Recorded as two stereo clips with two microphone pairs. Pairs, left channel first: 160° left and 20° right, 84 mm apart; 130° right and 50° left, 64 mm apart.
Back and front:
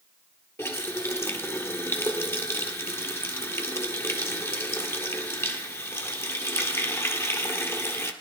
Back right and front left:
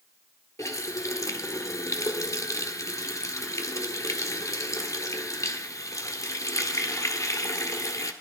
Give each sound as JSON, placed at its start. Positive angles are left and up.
{"t": 0.6, "sound": "a running tap", "azimuth_deg": -145, "distance_m": 1.3}